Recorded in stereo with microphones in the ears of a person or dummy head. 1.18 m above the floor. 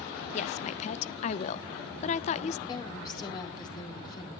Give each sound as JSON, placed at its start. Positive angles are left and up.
{"t": 0.3, "sound": "a woman speaking", "side_deg": 40, "distance_m": 0.8}
{"t": 2.7, "sound": "a woman speaking", "side_deg": 30, "distance_m": 4.0}